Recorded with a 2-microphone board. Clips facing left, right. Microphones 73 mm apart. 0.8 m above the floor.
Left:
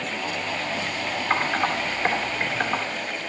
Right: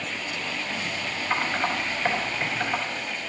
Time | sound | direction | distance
1.3 | typing on a keyboard | 55° left (ahead or behind) | 3.5 m